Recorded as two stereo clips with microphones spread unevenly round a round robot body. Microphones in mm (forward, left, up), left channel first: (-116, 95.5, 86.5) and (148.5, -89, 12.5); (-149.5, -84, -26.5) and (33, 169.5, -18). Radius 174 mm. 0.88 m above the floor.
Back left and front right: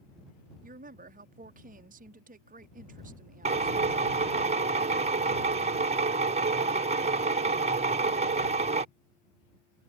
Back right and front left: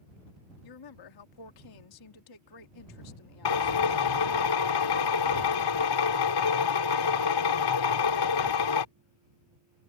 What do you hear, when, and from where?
0.6 s a woman speaking: 95° right
3.5 s a drill: 100° right